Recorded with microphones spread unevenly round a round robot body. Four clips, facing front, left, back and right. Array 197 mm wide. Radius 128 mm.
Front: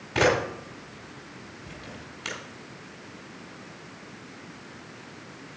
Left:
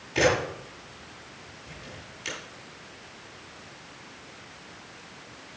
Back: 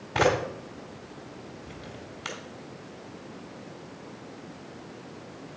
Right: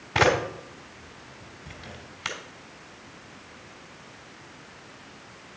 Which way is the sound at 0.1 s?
85° right.